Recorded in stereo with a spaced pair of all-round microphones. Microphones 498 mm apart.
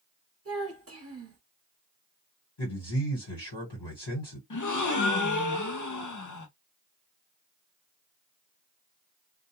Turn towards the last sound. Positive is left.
turn(degrees=40)  # may be behind; listen again after turning